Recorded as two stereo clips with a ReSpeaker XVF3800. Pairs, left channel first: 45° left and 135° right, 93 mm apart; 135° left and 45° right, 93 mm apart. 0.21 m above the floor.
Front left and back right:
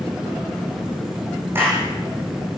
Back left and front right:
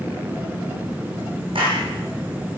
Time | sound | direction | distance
1.6 | a clap | 70° right | 8.5 m